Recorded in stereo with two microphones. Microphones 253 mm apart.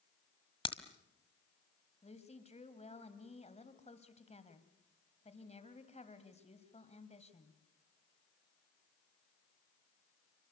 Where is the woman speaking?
25° left (ahead or behind), 2 m.